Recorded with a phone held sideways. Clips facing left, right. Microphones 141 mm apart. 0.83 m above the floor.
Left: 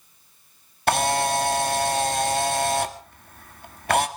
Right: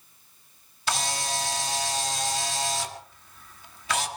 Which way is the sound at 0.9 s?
60° left (ahead or behind).